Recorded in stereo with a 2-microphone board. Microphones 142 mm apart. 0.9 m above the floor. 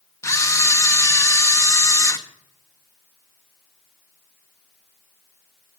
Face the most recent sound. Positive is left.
turn(degrees=20)  # may be behind; listen again after turning